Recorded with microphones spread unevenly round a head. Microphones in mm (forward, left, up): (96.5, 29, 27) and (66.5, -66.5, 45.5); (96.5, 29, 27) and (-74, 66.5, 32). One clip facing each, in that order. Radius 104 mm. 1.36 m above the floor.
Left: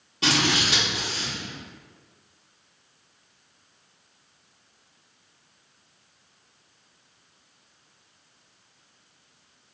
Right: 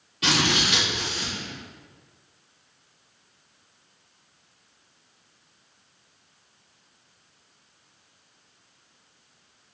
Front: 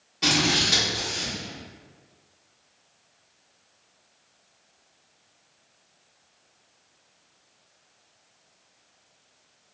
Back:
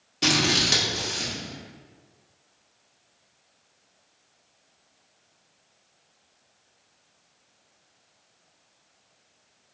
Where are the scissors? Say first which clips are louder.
Even, even; 145° left, 1.1 m.